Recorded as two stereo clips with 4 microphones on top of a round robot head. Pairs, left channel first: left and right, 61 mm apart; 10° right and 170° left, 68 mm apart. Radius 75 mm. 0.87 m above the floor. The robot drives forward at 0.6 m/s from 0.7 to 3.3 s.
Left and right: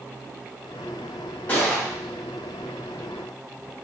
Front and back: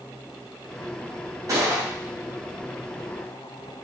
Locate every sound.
1.5 s a gunshot: 150° left, 1.8 m